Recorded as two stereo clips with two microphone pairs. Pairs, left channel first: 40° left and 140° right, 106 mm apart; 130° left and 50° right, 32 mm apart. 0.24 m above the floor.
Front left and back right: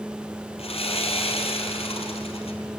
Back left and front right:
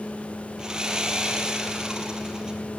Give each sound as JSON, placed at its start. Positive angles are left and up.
{"t": 0.6, "sound": "sawing", "azimuth_deg": 20, "distance_m": 3.5}